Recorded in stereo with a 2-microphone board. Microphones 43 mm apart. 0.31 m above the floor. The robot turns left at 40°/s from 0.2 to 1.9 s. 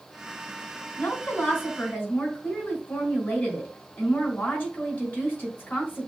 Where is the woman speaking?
90° left, 2.5 m; by 6.1 s 55° left, 2.5 m.